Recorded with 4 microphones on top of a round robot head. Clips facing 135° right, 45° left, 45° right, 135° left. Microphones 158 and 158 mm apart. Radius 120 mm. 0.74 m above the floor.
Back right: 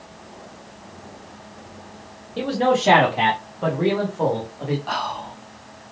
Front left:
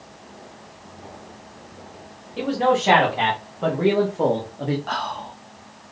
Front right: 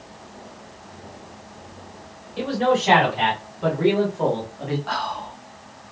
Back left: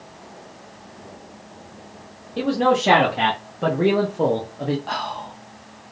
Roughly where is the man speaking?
Behind.